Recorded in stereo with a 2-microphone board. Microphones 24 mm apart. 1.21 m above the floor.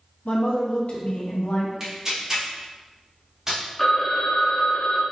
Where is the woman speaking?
60° left (ahead or behind), 1.2 m.